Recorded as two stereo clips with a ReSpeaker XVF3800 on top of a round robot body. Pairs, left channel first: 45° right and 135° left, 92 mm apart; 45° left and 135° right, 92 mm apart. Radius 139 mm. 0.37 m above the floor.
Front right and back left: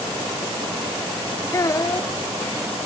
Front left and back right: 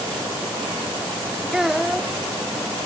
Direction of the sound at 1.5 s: 55° right.